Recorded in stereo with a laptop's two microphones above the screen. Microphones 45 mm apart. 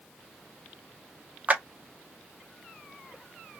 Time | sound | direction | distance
1.5 | a clap | 35° right (ahead or behind) | 0.6 m